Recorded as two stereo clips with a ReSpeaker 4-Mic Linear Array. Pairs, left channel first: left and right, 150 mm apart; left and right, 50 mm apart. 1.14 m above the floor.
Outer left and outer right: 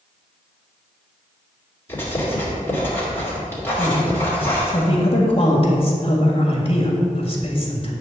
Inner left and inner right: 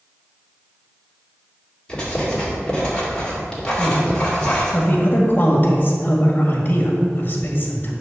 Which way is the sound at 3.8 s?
40° left (ahead or behind).